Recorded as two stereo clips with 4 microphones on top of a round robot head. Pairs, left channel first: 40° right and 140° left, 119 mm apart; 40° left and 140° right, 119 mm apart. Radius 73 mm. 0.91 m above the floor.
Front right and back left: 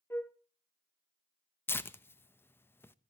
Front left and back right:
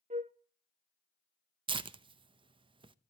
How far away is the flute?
About 0.7 m.